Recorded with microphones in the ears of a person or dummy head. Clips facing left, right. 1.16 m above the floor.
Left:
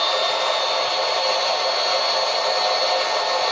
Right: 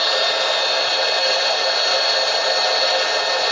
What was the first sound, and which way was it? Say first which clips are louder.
A machine running: right 1 dB; 20° right (ahead or behind).